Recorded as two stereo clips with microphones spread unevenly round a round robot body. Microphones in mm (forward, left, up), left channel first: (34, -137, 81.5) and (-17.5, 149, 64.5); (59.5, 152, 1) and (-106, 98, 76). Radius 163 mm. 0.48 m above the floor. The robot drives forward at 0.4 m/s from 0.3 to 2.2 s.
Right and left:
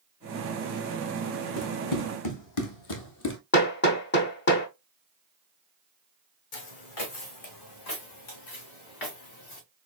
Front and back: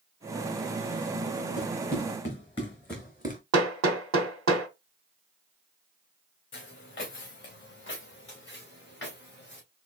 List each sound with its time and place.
1.6 s running footsteps: 45° right, 2.5 m; by 3.4 s 130° right, 0.7 m
3.5 s hammering: 135° right, 1.0 m
6.5 s footsteps: 55° right, 1.4 m; by 9.6 s 75° right, 3.5 m